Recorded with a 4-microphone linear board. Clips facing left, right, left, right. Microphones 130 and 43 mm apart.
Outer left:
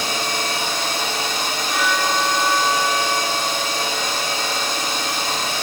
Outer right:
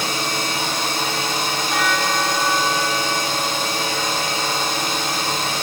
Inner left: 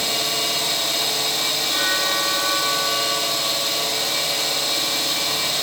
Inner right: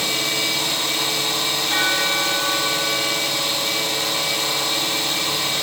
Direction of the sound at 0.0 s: 50° right (ahead or behind).